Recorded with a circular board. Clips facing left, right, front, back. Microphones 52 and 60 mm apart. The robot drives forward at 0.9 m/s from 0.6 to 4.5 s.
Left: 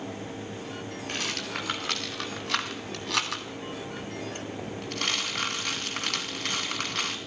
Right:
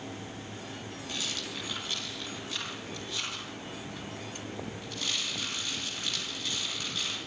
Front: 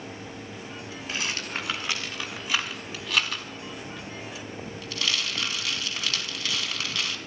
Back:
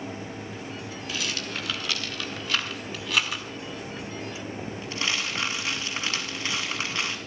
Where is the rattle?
50° left, 3 m; by 7.2 s 120° left, 2.5 m.